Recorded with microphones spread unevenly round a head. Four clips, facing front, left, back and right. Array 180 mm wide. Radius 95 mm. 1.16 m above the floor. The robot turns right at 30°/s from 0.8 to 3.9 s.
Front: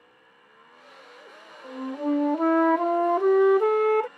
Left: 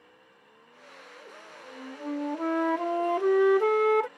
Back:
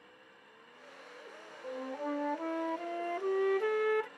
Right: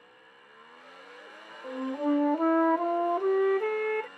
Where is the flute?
40° right; by 4.1 s 30° left.